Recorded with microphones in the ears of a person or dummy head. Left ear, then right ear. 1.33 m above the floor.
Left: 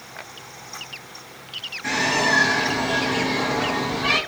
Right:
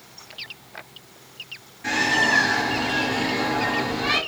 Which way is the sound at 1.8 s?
25° left (ahead or behind).